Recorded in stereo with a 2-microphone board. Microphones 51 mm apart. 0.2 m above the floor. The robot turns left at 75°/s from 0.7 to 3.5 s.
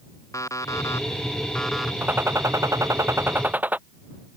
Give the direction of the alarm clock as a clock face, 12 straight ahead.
9 o'clock.